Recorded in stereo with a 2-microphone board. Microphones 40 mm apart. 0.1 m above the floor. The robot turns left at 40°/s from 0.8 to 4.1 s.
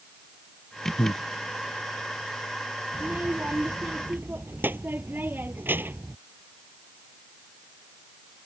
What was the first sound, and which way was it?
Breathing, 55° left (ahead or behind).